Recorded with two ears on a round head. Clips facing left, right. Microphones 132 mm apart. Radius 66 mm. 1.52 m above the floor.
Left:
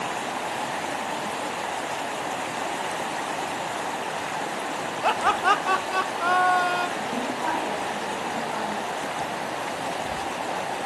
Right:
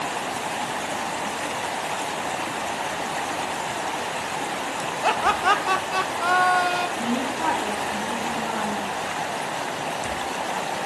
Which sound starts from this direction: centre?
Laughter, at 5.0 s.